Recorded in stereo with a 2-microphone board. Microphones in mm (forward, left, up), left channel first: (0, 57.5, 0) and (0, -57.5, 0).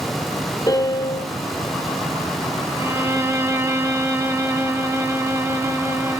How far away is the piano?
About 2 m.